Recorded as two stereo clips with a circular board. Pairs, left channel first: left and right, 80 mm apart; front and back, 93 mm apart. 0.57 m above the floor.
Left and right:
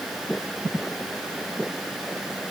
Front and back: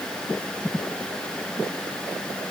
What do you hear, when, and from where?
Only background noise.